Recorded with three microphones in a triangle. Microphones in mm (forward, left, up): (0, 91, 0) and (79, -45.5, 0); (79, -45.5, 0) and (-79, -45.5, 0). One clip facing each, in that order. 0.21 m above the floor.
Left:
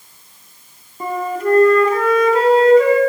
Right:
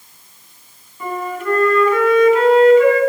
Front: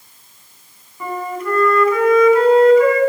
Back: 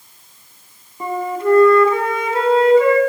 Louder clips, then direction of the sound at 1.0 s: Left 3 dB, back 4 dB; 135° left.